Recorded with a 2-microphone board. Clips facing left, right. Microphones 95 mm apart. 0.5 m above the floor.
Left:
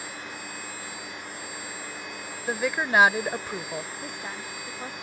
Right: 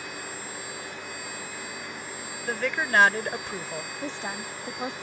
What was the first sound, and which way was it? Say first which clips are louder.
A woman speaking: left 1 dB; 10° left (ahead or behind).